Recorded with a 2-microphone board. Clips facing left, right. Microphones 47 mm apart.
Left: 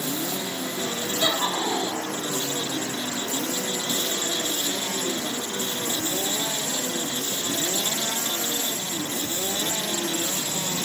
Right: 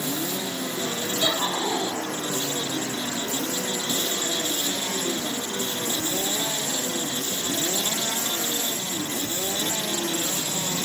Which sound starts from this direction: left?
Laughter, at 1.2 s.